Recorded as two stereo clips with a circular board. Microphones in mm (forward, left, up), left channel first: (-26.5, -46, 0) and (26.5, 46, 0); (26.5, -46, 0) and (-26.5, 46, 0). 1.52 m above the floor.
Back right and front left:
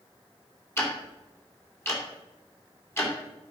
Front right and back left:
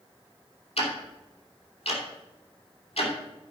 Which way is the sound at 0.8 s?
55° right.